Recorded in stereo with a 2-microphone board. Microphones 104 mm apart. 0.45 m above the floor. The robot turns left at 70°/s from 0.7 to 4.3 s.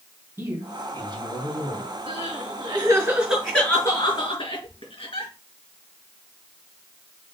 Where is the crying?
80° right, 5.5 m; by 5.3 s 65° left (ahead or behind), 5.5 m.